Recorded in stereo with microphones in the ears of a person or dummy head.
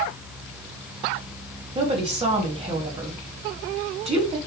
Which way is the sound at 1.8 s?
35° right (ahead or behind).